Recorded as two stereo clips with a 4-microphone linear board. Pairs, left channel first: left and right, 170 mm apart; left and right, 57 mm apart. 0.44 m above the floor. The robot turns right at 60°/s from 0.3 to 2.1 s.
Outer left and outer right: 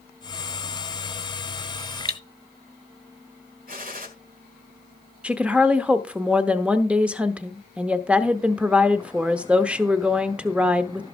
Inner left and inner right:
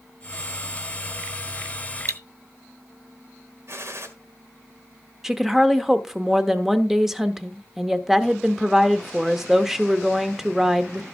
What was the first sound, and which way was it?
Cutlery clinking, 65° right (ahead or behind).